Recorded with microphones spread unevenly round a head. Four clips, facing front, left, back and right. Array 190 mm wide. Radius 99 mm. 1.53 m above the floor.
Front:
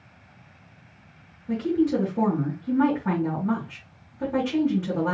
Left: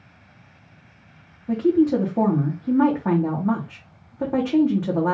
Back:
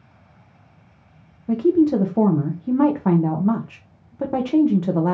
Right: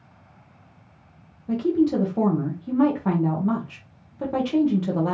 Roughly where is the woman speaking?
Behind.